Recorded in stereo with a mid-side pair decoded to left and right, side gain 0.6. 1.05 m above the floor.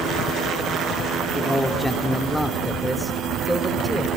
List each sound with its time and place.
1.4 s a man speaking: 5° left, 2 m; by 4.1 s 5° right, 4 m